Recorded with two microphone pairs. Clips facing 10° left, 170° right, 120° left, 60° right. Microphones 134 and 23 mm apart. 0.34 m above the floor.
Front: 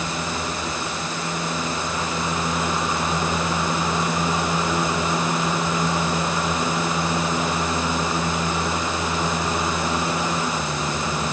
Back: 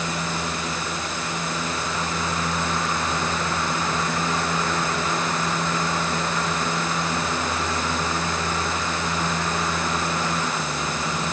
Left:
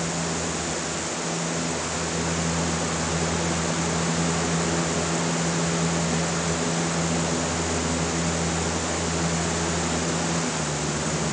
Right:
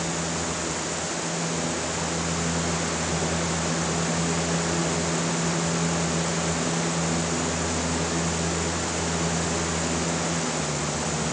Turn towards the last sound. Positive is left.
No sound to turn to.